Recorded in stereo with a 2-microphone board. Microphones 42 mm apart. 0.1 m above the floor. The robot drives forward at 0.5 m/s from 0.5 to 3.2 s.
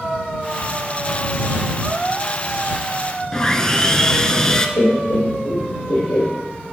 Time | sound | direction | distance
3.3 | sawing | 20° left (ahead or behind) | 0.6 m
4.8 | laughter | 60° left (ahead or behind) | 2.5 m